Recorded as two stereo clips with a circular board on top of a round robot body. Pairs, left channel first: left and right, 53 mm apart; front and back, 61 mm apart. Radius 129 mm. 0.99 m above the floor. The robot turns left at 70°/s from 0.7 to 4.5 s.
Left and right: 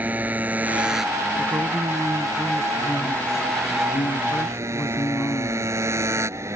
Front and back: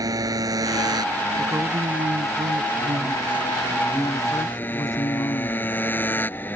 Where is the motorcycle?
155° right; by 6.6 s 60° right.